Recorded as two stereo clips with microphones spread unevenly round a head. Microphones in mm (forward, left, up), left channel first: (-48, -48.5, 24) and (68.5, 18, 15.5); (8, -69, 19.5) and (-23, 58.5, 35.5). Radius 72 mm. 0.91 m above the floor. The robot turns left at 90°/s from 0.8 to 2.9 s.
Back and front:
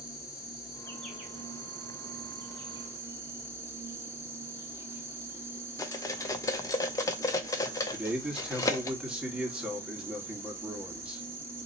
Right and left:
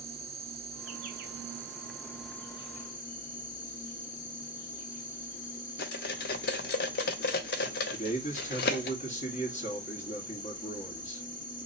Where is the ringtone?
I don't hear a ringtone.